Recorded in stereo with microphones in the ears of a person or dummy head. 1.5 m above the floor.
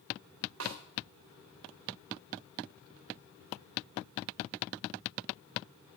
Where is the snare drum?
80° right, 3 m.